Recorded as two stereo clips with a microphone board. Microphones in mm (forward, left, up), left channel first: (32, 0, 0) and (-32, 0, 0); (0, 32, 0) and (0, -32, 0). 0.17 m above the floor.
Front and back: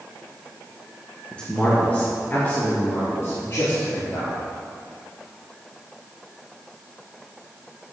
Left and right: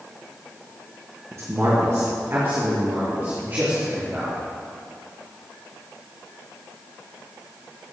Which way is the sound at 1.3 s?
70° right.